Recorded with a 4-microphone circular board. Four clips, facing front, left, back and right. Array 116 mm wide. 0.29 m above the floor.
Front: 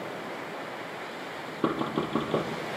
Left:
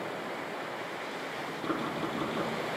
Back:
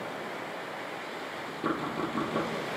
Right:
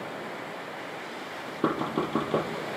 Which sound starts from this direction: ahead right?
Knocking, at 1.6 s.